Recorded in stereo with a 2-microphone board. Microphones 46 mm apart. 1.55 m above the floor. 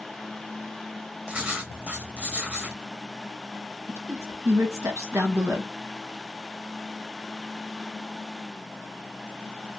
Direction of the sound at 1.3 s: 30° right (ahead or behind).